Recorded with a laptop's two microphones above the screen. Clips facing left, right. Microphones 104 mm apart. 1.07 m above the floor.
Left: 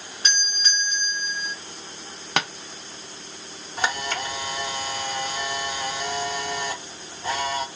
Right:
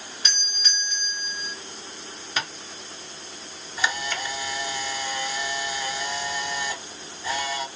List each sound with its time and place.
0.2 s a doorbell: 40° left (ahead or behind), 1.2 m
2.4 s tapping: 70° left (ahead or behind), 0.7 m
3.8 s a camera shutter: 55° left (ahead or behind), 1.0 m